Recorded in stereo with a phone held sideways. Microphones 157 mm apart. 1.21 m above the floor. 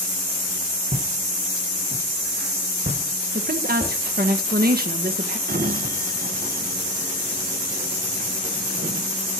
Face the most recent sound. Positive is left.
turn(degrees=-70)  # may be behind; listen again after turning